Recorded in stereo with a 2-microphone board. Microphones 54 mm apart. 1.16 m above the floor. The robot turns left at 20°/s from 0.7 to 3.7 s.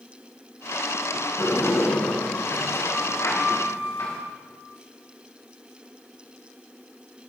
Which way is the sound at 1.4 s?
95° left.